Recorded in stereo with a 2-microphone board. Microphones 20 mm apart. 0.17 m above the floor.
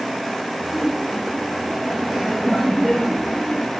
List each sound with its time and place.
0.6 s laughter: 25° right (ahead or behind), 3.5 m; by 3.8 s 15° right (ahead or behind), 5 m